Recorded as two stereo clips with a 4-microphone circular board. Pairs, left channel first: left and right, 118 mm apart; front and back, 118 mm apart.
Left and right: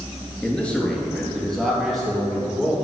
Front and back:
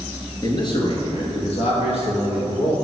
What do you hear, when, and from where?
0.4 s a man speaking: 20° left, 2 m; by 2.7 s straight ahead, 4 m